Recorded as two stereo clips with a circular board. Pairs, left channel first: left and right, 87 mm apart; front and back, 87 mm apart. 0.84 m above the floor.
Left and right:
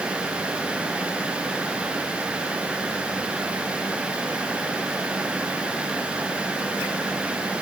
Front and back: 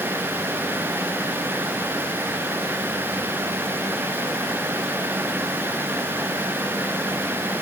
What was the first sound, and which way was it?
Only background noise.